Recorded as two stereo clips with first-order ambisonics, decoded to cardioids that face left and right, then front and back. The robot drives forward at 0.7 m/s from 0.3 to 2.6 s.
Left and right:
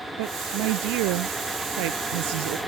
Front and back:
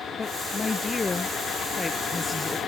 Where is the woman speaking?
75° right; by 2.6 s 80° right.